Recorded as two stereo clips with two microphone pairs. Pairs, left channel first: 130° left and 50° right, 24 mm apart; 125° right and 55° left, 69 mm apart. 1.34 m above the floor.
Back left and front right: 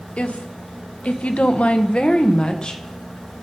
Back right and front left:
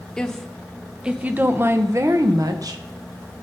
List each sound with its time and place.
0.2 s a woman speaking: 155° left, 1.1 m; by 2.8 s 75° left, 1.2 m